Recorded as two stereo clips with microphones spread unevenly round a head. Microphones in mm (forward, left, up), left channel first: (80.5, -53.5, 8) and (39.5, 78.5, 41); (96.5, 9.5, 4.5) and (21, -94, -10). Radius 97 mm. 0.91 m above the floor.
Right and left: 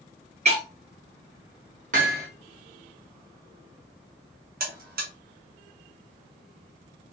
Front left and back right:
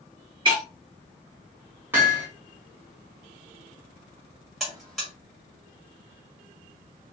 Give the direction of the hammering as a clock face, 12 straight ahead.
7 o'clock.